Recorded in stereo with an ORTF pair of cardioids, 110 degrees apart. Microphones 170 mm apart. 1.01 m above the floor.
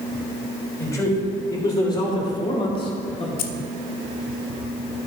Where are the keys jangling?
65° left, 0.7 m.